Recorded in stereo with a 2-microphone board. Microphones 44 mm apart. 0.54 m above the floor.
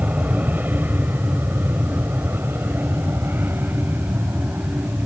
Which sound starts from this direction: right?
An aircraft, at 0.0 s.